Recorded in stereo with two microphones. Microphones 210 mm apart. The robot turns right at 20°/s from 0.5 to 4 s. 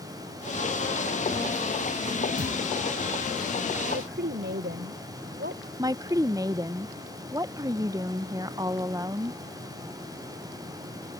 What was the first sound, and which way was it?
A thud, 65° right (ahead or behind).